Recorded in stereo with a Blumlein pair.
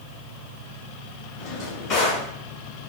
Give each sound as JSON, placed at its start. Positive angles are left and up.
{"t": 1.4, "sound": "a drawer", "azimuth_deg": 45, "distance_m": 1.6}